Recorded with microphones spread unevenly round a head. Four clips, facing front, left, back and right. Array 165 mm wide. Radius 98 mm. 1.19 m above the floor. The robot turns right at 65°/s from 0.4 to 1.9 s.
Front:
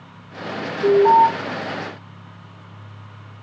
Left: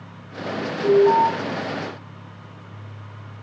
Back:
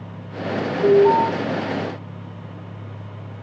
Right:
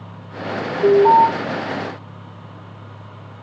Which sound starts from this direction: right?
An alarm, at 0.8 s.